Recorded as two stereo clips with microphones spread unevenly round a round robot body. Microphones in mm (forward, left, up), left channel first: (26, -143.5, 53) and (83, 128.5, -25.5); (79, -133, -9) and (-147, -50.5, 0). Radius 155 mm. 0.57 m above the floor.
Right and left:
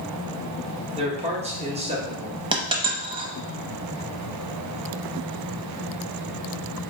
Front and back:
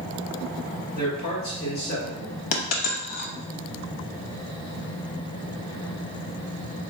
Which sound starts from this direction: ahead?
A dropped coin, at 2.5 s.